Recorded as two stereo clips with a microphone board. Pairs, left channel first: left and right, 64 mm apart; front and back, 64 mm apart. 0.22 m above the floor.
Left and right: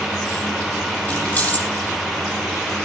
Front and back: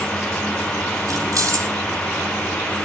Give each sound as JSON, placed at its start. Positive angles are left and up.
{"t": 1.1, "sound": "keys jangling", "azimuth_deg": 150, "distance_m": 6.0}